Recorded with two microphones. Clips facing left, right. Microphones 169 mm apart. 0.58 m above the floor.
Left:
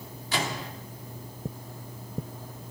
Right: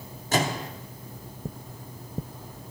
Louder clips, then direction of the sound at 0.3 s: Right 5 dB; 45° right (ahead or behind).